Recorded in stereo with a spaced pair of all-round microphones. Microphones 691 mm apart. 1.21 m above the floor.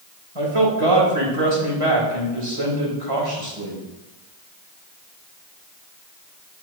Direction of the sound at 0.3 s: 45° right (ahead or behind).